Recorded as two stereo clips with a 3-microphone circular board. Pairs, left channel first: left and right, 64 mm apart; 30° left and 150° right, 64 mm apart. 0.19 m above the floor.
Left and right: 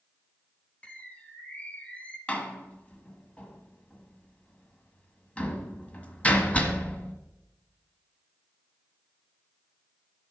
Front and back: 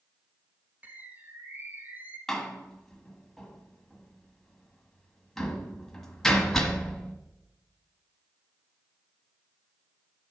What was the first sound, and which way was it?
A bird, 155° left.